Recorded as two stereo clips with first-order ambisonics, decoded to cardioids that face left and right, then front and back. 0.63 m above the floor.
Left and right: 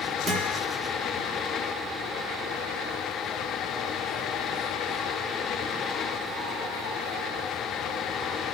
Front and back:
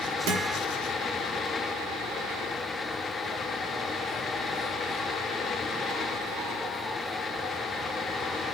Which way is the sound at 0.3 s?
165° right.